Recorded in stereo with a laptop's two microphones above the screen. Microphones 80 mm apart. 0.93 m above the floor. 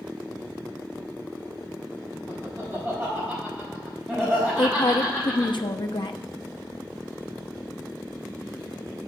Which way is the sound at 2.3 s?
20° right (ahead or behind).